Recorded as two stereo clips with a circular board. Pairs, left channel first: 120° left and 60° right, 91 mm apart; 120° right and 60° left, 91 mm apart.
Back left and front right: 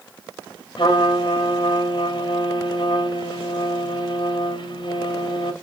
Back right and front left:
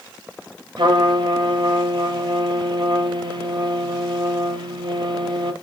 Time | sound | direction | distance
0.8 | a trumpet | 90° left | 0.8 m